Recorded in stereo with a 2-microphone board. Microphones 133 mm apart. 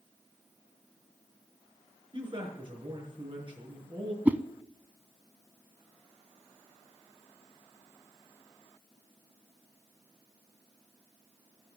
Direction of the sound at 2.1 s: 40° right (ahead or behind).